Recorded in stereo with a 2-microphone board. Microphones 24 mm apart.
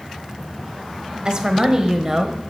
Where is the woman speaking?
40° right (ahead or behind), 1.2 m; by 2.4 s 15° right (ahead or behind), 1.2 m.